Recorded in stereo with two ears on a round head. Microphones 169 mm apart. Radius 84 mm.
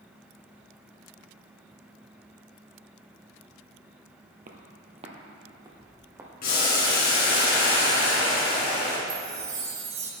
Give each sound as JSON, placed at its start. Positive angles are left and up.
{"t": 4.5, "sound": "footsteps", "side_deg": -45, "distance_m": 1.4}
{"t": 6.4, "sound": "boiling", "side_deg": 50, "distance_m": 4.0}
{"t": 9.1, "sound": "a chime", "side_deg": -30, "distance_m": 1.8}